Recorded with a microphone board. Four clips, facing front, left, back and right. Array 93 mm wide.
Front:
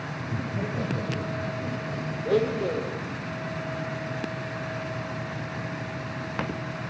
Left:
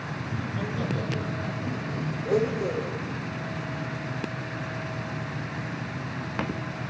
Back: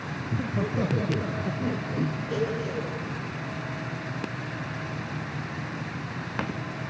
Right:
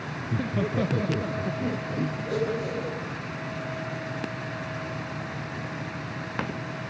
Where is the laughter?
100° right, 1.6 m; by 2.1 s 135° right, 2.5 m.